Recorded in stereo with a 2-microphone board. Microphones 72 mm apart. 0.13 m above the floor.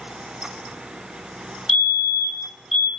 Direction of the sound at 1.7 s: 10° right (ahead or behind).